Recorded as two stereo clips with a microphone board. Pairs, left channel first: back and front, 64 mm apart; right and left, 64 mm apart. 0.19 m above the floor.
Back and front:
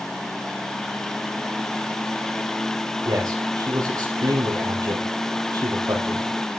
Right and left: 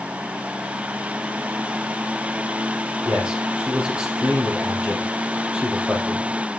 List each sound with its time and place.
3.0 s a man speaking: 15° left, 5.5 m